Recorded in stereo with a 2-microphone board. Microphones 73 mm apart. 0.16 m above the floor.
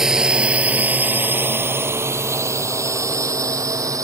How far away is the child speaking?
I don't hear a child speaking.